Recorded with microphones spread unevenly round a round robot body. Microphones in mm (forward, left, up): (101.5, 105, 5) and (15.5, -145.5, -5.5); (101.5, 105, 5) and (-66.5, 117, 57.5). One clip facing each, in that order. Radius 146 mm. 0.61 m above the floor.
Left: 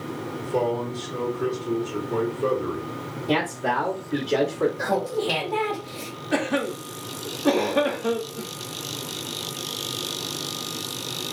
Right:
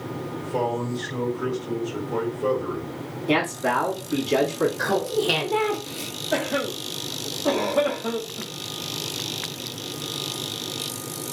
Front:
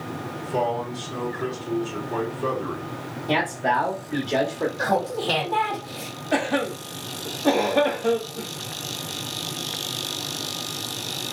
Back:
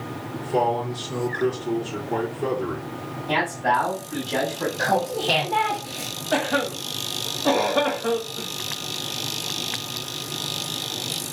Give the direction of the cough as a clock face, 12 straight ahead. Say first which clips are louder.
Left 2 dB, even; 11 o'clock.